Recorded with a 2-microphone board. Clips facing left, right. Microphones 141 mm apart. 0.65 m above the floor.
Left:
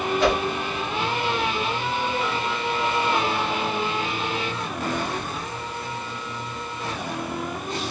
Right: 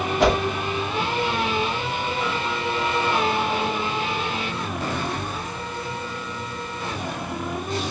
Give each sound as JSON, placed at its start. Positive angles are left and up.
{"t": 0.2, "sound": "a whoosh", "side_deg": -70, "distance_m": 3.0}